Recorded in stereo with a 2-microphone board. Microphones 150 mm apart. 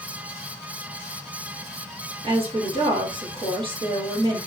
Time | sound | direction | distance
2.2 | a woman speaking | 35° right (ahead or behind) | 1.8 m